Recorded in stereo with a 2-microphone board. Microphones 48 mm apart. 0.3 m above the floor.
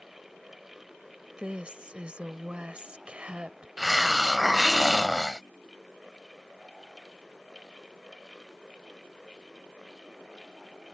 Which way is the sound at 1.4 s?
25° right (ahead or behind).